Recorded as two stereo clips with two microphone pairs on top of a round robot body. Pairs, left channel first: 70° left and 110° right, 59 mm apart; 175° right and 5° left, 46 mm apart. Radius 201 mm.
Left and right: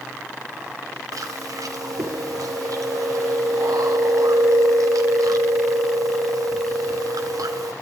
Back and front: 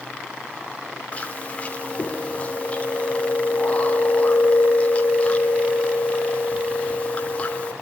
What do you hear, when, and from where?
1.1 s chewing: 120° right, 3 m